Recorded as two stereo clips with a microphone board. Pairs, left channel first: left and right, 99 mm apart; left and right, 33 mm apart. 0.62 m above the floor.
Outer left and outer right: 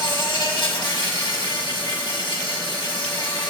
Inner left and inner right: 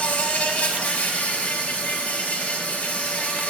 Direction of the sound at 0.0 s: 55° left (ahead or behind).